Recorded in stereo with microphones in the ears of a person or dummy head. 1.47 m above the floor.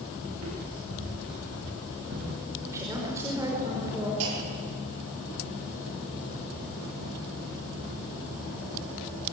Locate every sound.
0.3 s footsteps: 75° right (ahead or behind), 9.5 m; by 2.4 s 80° right, 10.5 m
2.7 s a woman speaking: 15° right (ahead or behind), 5.5 m
4.2 s a clunk: 80° right, 5 m